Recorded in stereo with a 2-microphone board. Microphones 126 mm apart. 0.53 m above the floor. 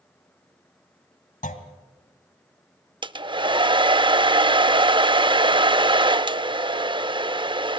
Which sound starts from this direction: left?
A clunk, at 1.4 s.